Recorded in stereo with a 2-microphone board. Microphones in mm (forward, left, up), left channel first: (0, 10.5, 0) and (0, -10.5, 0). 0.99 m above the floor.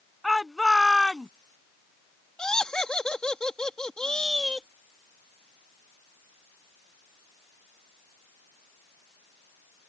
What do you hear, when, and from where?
0.2 s a shout: 5° right (ahead or behind); by 1.3 s centre (ahead or behind)
2.4 s laughter: 40° left (ahead or behind)